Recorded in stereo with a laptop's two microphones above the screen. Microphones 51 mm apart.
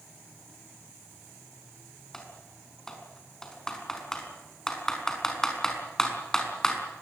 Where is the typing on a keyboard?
10° left (ahead or behind), 5.5 m.